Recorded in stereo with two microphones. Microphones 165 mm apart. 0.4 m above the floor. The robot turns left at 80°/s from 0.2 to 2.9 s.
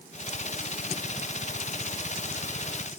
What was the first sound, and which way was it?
Only background noise.